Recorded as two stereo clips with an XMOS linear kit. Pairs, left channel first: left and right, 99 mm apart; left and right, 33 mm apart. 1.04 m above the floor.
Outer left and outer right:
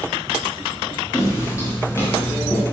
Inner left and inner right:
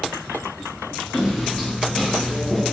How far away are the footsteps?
About 6 m.